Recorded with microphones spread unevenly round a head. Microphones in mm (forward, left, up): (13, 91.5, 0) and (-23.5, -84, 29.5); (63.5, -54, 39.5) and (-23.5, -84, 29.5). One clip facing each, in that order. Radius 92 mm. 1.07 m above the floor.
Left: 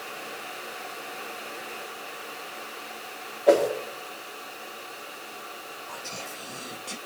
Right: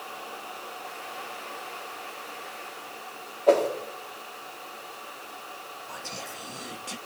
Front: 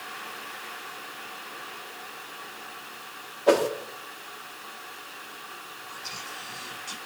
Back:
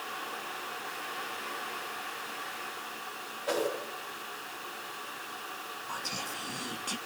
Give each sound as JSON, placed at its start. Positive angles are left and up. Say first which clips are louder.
{"t": 3.5, "sound": "a whoosh", "louder": "left 1 dB, front 10 dB", "azimuth_deg": 0, "distance_m": 3.0}
{"t": 5.9, "sound": "whispering", "louder": "even, back 2 dB", "azimuth_deg": 170, "distance_m": 1.0}